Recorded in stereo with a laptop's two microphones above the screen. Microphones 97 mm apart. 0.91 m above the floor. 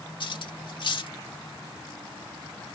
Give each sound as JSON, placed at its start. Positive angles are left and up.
{"t": 0.2, "sound": "cutlery clinking", "side_deg": 55}